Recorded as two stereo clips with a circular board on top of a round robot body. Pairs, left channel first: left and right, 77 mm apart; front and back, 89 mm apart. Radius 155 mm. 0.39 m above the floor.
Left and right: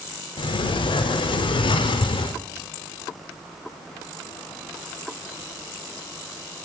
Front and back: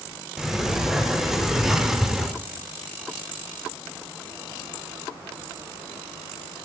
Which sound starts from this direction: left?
A sliding door, at 0.4 s.